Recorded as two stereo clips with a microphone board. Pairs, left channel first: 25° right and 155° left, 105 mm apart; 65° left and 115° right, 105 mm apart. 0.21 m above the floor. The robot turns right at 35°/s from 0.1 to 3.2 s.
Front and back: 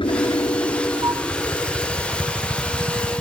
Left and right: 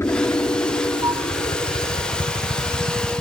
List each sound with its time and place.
0.0 s a helicopter: 5° left; by 3.2 s 105° left
1.0 s a flute: 155° right; by 1.3 s 145° right